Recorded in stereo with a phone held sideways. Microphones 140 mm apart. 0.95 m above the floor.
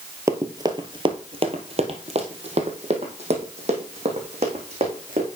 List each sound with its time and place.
0.3 s running footsteps: 20° right (ahead or behind), 1.0 m; by 5.3 s 45° right (ahead or behind), 3 m